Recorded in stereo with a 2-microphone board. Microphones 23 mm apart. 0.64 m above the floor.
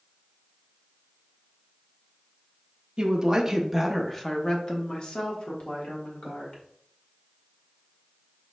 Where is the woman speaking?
40° right (ahead or behind), 0.7 m; by 6.6 s 60° left (ahead or behind), 1.7 m.